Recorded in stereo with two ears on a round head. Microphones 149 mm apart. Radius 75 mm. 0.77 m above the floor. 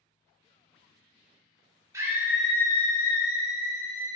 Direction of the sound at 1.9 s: 20° right (ahead or behind).